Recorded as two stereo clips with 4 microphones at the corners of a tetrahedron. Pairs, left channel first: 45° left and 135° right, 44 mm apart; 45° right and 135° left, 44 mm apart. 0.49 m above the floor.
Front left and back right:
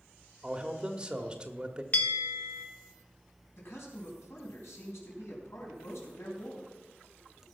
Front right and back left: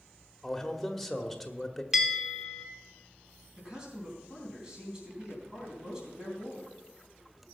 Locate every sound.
0.4 s a man speaking: 125° right, 1.1 m
1.9 s a bell: 55° left, 1.2 m
3.6 s a man speaking: 60° left, 3.5 m